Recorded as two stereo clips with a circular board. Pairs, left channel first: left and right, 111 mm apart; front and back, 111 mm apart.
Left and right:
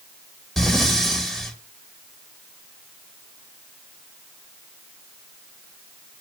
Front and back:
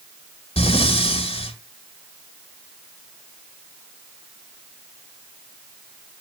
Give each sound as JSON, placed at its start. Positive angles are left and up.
{"t": 0.6, "sound": "breathing", "azimuth_deg": 0, "distance_m": 1.6}